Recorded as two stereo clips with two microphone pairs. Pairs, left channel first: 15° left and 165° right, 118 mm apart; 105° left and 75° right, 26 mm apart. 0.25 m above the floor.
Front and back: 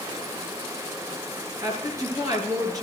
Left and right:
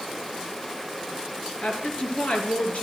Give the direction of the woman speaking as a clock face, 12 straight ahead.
7 o'clock.